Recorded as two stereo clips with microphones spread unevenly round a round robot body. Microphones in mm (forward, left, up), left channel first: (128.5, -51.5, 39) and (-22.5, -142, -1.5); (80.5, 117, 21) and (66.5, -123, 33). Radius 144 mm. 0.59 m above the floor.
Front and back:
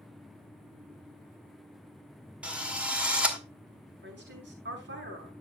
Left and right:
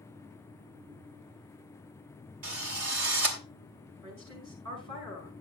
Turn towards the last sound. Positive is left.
turn(degrees=-140)